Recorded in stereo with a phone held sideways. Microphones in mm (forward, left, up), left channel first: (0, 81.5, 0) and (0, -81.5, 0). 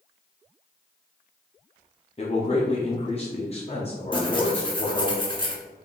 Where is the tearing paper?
30° left (ahead or behind), 0.8 m.